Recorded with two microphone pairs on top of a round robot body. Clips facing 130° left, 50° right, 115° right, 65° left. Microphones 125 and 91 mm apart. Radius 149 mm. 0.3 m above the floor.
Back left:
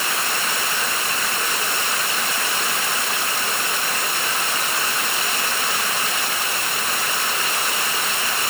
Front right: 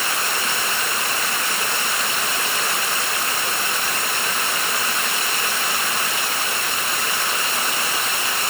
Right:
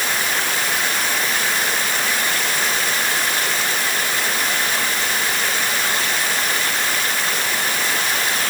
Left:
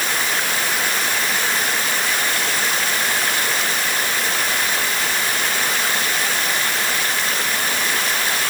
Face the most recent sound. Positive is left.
No sound to turn to.